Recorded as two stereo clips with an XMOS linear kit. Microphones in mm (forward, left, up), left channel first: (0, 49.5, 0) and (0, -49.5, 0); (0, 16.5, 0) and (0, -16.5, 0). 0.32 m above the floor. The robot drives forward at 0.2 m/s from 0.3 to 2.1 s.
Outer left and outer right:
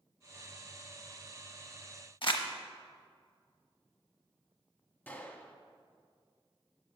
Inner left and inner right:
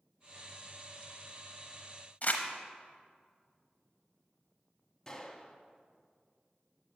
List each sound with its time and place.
2.2 s crumpling: 55° left (ahead or behind), 0.8 m
5.1 s a gunshot: 20° left (ahead or behind), 0.6 m